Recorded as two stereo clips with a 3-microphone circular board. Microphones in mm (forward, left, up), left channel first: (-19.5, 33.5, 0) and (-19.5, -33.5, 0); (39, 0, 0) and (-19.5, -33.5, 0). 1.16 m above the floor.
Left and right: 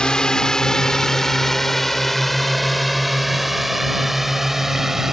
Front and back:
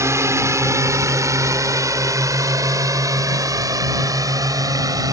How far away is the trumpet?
I don't hear a trumpet.